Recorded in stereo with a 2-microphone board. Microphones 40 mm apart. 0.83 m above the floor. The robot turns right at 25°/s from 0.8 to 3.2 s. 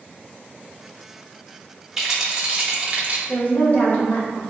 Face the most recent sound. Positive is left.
turn(degrees=35)  # may be behind; listen again after turning